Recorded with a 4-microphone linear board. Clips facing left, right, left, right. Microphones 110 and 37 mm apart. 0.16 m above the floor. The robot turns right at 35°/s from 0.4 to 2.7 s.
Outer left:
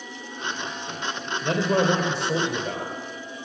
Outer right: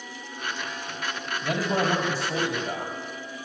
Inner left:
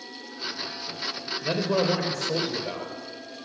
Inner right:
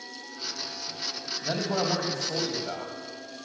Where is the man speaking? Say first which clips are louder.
Outer left 4 dB, inner left 4 dB; 65° left, 3.5 m; by 2.9 s 115° left, 3.5 m.